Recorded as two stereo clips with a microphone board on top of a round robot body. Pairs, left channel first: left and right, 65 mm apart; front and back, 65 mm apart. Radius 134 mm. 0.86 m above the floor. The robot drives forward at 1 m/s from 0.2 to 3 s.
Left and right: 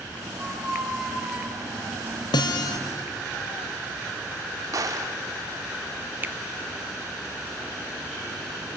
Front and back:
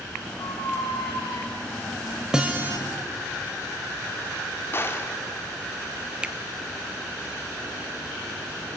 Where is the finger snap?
120° right, 0.8 m.